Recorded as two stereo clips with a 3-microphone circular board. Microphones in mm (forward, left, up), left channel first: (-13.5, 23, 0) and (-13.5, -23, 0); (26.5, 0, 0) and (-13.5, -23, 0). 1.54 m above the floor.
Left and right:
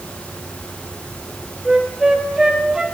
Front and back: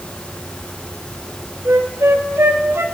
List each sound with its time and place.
1.6 s a flute: 165° right, 2 m